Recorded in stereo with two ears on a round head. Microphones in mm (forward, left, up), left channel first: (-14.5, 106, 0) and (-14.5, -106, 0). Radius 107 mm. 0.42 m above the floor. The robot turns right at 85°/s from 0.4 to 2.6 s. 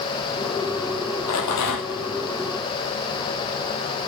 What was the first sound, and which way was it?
A rattle, 65° left.